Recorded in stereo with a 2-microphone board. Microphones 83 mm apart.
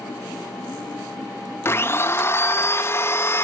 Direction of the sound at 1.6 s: 30° left (ahead or behind).